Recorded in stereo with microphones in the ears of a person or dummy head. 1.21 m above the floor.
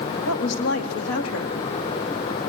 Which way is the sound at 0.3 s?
85° left.